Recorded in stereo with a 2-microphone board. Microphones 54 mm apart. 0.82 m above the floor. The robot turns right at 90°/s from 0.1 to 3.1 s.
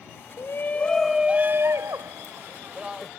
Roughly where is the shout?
Behind left.